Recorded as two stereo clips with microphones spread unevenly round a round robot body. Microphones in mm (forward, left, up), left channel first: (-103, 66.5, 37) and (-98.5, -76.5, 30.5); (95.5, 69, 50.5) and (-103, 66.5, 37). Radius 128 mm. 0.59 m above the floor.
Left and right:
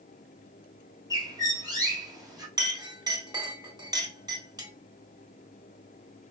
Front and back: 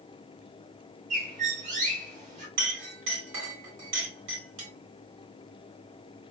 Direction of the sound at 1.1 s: 145° right.